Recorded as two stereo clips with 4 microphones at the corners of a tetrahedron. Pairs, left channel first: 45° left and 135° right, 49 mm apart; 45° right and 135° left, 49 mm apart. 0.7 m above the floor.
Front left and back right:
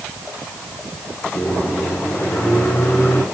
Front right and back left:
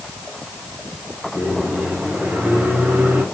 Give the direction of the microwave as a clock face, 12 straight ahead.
9 o'clock.